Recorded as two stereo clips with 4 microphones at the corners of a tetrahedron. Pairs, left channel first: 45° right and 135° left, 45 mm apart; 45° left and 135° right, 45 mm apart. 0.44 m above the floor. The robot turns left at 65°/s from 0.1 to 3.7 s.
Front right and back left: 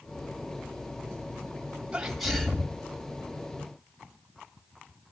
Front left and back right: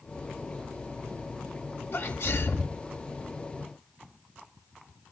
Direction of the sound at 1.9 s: 70° left.